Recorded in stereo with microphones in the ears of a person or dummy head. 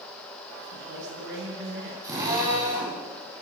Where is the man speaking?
65° right (ahead or behind), 9.5 m.